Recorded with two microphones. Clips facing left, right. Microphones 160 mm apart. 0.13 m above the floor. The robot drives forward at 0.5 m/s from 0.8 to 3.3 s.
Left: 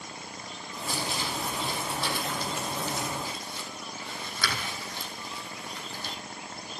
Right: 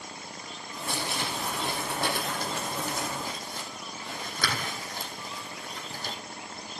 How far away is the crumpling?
About 2.5 m.